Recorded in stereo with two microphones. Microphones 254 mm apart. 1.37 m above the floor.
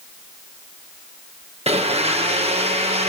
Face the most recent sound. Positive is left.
turn(degrees=-25)  # may be behind; listen again after turning